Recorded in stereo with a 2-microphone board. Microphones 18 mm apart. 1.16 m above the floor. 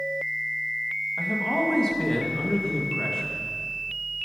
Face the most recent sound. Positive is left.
turn(degrees=40)  # may be behind; listen again after turning